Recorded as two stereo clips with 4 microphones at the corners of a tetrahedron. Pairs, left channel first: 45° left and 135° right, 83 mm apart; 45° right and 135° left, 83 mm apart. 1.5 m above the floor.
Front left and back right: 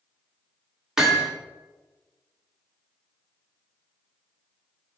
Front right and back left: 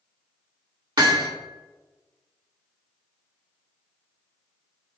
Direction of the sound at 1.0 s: 145° left.